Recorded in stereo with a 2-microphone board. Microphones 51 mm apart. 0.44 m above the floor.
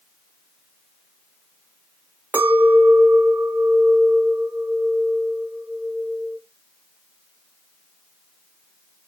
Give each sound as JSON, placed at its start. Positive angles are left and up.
{"t": 2.3, "sound": "a clink", "side_deg": -30, "distance_m": 1.7}